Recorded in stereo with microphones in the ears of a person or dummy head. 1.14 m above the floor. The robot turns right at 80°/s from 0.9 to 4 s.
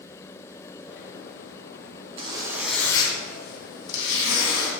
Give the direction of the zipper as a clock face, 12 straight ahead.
1 o'clock.